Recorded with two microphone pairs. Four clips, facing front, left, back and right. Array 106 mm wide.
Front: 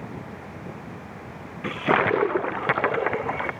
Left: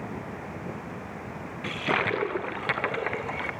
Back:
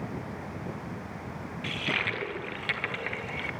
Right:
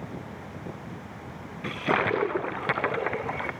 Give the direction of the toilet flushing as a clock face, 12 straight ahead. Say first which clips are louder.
Right 2 dB, front 13 dB; 12 o'clock.